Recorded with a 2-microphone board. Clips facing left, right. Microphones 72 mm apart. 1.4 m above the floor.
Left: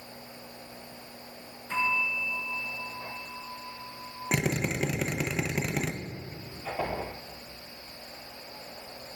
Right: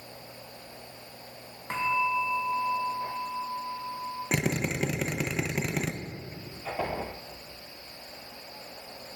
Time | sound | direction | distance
1.7 | a bell | 60° right (ahead or behind) | 1.3 m
4.3 | a drill | centre (ahead or behind) | 0.5 m